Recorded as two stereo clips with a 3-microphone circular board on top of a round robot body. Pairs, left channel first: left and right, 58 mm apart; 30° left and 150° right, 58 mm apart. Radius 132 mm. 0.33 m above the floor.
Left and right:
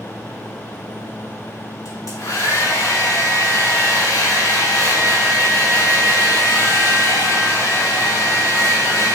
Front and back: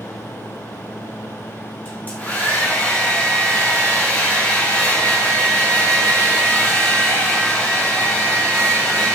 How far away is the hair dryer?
About 4 m.